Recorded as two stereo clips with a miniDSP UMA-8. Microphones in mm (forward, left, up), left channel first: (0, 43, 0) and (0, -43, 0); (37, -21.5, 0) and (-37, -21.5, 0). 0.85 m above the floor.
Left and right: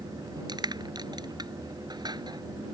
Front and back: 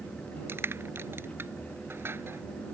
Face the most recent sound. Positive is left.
turn(degrees=-120)